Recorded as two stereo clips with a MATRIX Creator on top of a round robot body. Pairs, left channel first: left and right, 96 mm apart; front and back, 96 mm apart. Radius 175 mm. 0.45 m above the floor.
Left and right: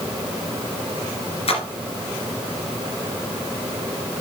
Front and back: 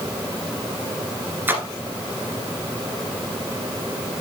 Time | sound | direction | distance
1.5 | a splash | 110° left | 1.8 m